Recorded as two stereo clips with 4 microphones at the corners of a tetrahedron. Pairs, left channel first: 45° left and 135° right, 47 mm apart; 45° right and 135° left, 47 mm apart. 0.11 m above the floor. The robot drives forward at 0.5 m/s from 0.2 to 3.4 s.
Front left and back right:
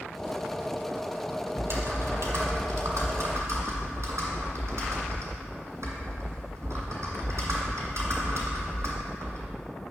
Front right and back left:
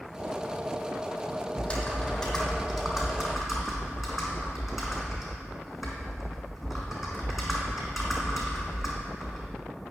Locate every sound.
1.6 s typing on a keyboard: 115° right, 1.3 m; by 9.6 s 140° right, 1.8 m